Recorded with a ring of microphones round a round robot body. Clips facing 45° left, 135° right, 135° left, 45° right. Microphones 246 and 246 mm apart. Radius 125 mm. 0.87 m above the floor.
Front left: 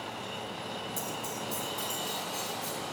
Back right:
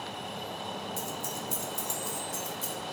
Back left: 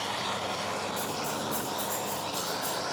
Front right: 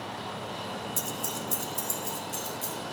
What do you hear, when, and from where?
1.0 s keys jangling: 45° right, 0.6 m; by 2.7 s 90° right, 2 m